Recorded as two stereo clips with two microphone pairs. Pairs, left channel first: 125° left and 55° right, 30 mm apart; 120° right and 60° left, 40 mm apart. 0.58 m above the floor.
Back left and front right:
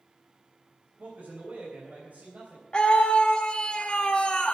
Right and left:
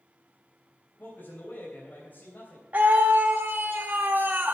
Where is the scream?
75° left, 0.9 m.